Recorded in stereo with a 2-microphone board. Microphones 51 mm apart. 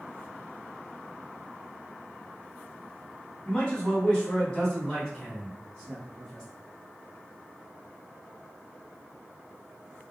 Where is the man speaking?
20° left (ahead or behind), 1.8 m; by 6.4 s 5° right (ahead or behind), 2.0 m.